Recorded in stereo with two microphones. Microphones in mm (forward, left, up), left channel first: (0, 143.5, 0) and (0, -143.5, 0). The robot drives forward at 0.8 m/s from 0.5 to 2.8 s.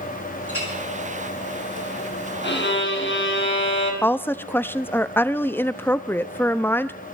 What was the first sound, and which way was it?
A clink, 85° left.